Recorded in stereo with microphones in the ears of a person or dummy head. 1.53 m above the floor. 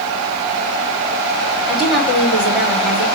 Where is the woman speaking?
5° left (ahead or behind), 4.5 m.